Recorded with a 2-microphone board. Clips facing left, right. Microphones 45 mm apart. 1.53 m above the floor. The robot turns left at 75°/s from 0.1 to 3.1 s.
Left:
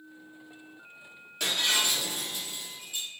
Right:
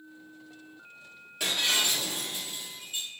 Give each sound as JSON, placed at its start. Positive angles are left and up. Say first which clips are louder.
{"t": 1.4, "sound": "breaking glass", "louder": "even", "azimuth_deg": -10, "distance_m": 2.5}